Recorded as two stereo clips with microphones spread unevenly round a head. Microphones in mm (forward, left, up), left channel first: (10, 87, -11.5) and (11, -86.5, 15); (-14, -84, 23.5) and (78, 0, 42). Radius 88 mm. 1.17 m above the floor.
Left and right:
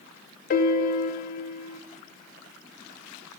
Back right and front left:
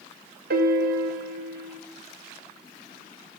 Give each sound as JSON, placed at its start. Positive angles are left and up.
{"t": 0.5, "sound": "a piano", "azimuth_deg": 45, "distance_m": 0.8}